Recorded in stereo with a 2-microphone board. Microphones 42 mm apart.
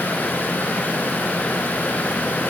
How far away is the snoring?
I don't hear snoring.